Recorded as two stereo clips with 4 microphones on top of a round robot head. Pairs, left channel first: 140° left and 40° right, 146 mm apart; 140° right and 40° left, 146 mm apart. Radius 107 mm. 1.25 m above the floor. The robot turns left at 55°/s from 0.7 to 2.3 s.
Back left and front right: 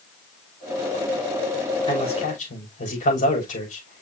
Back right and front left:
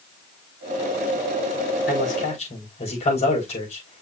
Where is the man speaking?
160° right, 5.5 m; by 4.0 s 175° left, 5.5 m.